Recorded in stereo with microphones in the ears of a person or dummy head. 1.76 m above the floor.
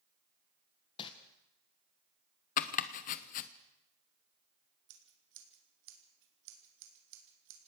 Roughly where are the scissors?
Right.